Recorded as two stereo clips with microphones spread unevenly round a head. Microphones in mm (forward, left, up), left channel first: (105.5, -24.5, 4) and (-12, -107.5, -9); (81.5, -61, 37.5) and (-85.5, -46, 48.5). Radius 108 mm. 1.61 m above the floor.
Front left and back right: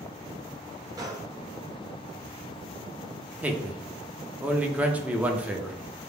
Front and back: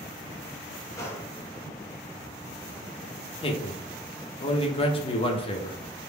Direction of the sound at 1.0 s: 80° right.